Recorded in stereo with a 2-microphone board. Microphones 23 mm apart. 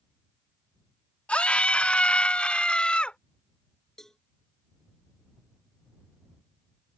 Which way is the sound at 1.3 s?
65° left (ahead or behind).